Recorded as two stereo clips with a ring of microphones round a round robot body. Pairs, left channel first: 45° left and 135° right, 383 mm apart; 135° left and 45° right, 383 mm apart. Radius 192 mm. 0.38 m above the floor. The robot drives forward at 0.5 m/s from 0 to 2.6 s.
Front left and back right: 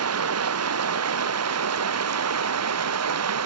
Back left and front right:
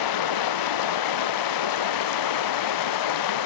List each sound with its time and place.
0.0 s running water: 170° left; by 3.5 s 175° left